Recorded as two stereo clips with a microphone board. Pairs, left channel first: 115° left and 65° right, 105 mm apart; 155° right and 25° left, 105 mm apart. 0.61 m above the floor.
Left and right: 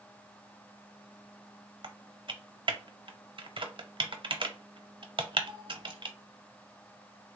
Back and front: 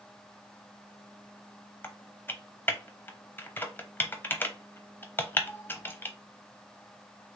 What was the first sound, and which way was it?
Typing on a keyboard, 90° right.